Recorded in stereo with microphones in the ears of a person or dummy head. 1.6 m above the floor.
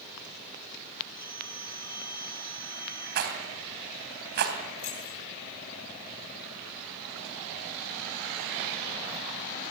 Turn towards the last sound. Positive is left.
turn(degrees=35)  # may be behind; listen again after turning